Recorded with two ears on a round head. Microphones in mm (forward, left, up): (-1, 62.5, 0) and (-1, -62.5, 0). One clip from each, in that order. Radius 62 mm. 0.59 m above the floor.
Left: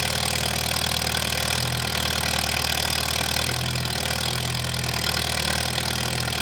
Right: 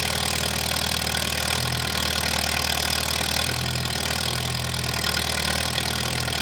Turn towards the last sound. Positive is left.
turn(degrees=5)  # may be behind; listen again after turning